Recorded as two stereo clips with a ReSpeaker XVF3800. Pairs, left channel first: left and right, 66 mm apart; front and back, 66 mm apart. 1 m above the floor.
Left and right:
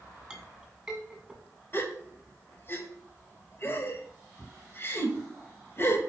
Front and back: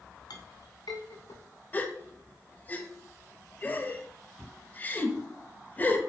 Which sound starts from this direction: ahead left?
A gasp, at 1.7 s.